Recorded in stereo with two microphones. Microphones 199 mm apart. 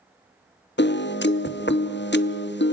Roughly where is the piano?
Left.